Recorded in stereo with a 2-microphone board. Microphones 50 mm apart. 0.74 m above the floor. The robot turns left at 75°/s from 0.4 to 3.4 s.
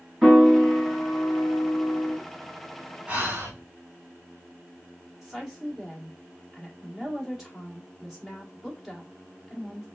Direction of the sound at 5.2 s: 10° right (ahead or behind).